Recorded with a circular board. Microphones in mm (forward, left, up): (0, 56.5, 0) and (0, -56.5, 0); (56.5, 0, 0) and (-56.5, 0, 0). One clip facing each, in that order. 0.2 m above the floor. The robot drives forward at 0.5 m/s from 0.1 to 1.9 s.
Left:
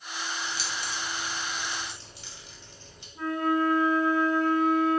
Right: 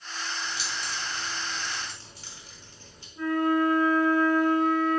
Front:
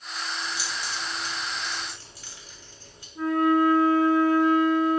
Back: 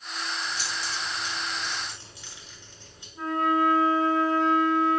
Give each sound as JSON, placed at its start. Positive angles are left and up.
{"t": 0.4, "sound": "keys jangling", "azimuth_deg": -75, "distance_m": 1.2}
{"t": 3.1, "sound": "a flute", "azimuth_deg": 75, "distance_m": 0.8}